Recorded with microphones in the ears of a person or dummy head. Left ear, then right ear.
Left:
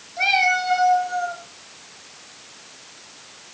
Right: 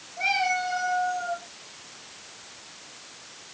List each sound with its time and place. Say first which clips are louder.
0.2 s a cat meowing: left 6 dB; 65° left (ahead or behind), 6 m; by 1.4 s 75° left (ahead or behind), 6.5 m